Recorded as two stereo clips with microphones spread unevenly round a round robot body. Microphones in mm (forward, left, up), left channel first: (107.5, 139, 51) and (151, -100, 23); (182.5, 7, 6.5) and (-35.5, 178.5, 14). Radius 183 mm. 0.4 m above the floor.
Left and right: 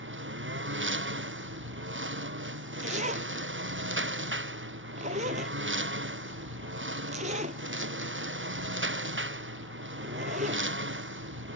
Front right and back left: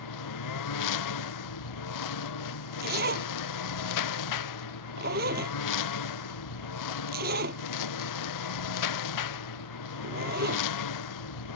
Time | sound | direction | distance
0.0 | a lawn mower | 40° right | ?
2.8 | a zipper | 150° right | ?